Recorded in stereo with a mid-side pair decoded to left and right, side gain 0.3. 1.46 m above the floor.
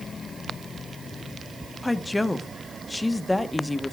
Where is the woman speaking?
20° left, 1.4 m.